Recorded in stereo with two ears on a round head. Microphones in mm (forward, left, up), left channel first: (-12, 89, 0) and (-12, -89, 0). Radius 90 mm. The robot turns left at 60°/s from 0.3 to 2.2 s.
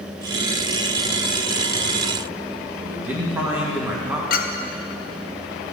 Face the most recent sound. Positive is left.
turn(degrees=45)  # may be behind; listen again after turning